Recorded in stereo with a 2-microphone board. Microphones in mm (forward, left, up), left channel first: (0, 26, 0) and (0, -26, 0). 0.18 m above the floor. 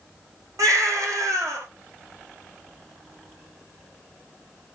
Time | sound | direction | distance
0.6 | a baby crying | 75° right (ahead or behind) | 5.5 m